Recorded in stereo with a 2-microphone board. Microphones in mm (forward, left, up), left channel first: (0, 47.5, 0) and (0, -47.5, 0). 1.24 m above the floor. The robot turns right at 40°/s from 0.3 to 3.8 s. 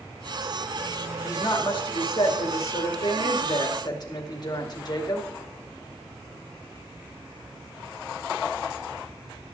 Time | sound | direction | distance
1.2 | a woman speaking | 30° left | 2 m